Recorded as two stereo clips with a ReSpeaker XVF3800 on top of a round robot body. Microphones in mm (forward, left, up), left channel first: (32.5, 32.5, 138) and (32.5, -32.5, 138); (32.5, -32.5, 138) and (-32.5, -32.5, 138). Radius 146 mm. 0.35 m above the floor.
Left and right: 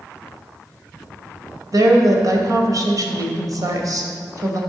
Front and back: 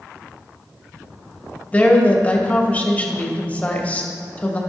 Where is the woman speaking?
65° right, 2 m.